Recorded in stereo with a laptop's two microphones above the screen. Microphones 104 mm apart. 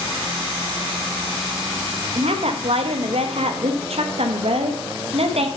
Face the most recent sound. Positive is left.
turn(degrees=-70)  # may be behind; listen again after turning